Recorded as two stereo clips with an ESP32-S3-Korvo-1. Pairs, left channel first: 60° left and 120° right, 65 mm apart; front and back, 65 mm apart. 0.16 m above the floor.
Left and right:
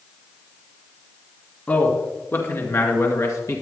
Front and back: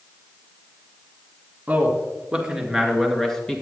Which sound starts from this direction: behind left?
A man speaking, at 1.7 s.